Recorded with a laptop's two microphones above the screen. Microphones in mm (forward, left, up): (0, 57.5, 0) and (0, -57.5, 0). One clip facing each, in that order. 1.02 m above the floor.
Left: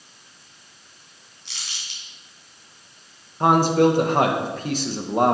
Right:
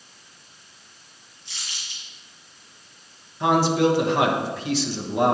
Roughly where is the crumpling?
Left.